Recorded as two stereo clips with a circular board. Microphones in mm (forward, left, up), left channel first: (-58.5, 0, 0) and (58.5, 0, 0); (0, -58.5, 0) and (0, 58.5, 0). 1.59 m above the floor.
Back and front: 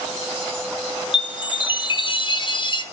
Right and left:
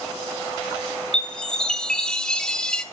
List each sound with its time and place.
1.1 s a chime: 170° right, 1.0 m